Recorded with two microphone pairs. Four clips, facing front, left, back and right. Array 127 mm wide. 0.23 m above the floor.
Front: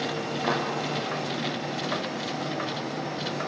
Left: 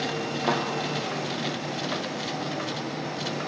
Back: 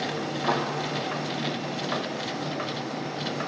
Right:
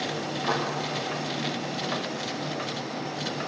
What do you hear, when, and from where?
0.5 s a thud: 70° left, 2.5 m